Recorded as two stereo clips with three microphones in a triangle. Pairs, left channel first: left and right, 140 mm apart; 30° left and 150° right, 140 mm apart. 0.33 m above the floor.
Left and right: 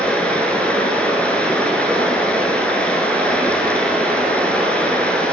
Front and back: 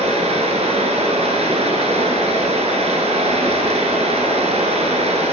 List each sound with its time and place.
0.0 s running water: 170° left, 1.2 m